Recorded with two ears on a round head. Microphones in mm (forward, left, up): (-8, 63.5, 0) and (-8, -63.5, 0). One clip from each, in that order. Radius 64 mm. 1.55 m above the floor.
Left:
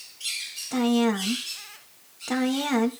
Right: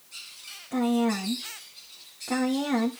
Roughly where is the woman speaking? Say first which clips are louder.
Left 2 dB; left.